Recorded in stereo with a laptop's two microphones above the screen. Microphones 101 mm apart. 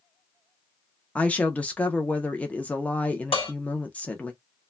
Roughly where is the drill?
No drill in this recording.